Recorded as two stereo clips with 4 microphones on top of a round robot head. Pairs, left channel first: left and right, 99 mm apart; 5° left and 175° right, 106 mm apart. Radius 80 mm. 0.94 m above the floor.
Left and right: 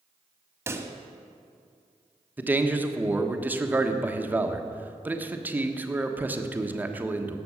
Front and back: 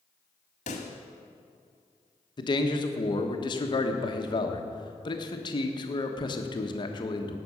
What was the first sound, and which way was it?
A pop, 30° right.